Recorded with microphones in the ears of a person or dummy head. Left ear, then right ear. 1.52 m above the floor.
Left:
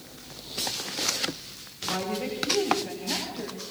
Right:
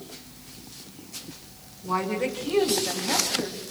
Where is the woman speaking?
60° right (ahead or behind), 6.5 m; by 3.6 s 55° right (ahead or behind), 8 m.